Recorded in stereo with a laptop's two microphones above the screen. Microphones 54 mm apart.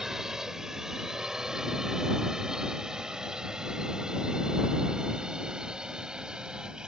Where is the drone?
10° right (ahead or behind); by 6.9 s 15° right (ahead or behind).